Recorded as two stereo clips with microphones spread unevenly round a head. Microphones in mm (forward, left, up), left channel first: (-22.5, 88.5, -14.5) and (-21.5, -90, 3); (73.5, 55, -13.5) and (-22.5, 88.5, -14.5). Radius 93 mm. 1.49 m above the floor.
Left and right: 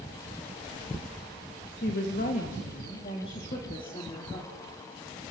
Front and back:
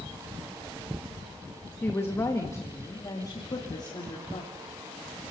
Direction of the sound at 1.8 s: 50° left.